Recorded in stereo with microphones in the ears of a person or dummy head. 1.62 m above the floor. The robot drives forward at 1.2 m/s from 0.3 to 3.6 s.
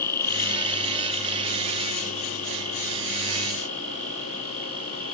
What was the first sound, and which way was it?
An insect, 15° left (ahead or behind).